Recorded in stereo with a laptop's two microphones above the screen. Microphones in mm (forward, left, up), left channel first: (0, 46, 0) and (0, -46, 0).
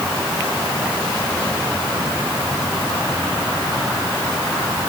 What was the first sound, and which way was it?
Only background noise.